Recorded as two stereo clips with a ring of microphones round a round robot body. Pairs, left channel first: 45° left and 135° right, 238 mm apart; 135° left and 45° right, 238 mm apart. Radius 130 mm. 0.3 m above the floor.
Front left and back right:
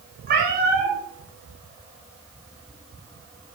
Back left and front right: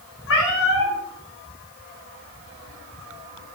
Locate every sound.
0.3 s a cat meowing: 170° left, 1.0 m